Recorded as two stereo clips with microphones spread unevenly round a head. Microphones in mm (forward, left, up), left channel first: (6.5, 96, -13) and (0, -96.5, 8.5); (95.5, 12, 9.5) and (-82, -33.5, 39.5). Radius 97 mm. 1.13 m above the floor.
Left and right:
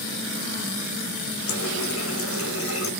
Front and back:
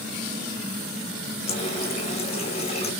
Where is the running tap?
75° left, 2.5 m.